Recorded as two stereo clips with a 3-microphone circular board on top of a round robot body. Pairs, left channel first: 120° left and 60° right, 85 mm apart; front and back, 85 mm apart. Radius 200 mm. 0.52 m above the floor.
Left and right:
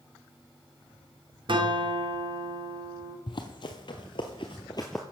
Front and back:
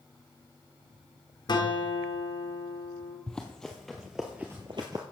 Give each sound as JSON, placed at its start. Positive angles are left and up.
{"t": 1.5, "sound": "a guitar", "azimuth_deg": -35, "distance_m": 2.5}
{"t": 3.3, "sound": "running footsteps", "azimuth_deg": 80, "distance_m": 0.9}